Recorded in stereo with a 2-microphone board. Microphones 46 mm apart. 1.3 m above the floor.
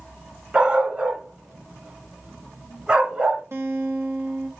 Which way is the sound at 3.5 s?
60° right (ahead or behind).